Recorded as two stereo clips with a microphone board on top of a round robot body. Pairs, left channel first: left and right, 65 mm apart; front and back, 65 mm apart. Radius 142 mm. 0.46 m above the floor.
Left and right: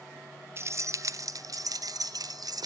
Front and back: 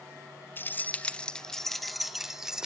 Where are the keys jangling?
50° right, 1.0 m; by 2.7 s 100° right, 1.5 m.